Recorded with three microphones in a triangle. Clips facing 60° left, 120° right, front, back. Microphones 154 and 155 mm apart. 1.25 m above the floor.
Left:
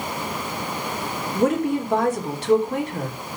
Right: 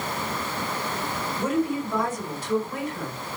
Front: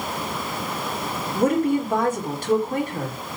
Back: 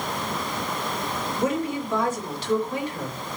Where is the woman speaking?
40° left, 3.5 m.